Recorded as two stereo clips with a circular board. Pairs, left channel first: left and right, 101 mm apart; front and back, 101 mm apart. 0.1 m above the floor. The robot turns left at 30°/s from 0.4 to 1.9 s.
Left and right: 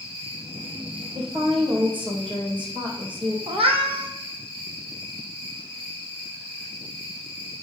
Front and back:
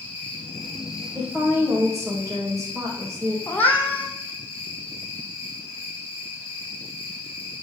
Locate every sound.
0.0 s an insect: 80° right, 3.5 m; by 7.6 s 125° right, 3.5 m
1.1 s a woman speaking: 100° right, 3.5 m; by 3.4 s 125° right, 3.5 m
3.5 s a cat meowing: 75° right, 1.5 m